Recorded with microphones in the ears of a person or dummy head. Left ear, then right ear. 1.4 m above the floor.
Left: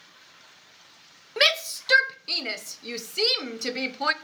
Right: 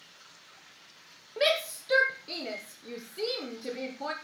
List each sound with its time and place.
1.4 s a shout: 55° left (ahead or behind), 0.9 m